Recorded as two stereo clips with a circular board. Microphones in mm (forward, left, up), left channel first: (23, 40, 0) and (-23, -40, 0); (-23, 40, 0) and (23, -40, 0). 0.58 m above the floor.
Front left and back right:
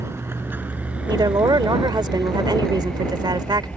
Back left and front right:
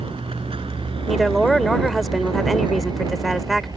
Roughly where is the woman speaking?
Behind right.